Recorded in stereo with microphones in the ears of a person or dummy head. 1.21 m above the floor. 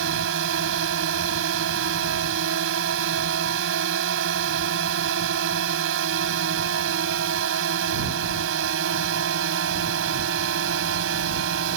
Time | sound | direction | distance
0.0 | a drone | 70° right (ahead or behind) | ?